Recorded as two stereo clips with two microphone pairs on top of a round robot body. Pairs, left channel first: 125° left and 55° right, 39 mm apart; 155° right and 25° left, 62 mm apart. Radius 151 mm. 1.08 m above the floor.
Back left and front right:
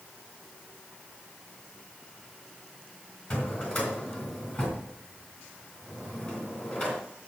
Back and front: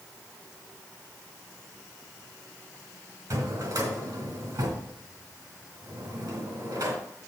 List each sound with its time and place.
3.3 s a drawer: 75° left, 3 m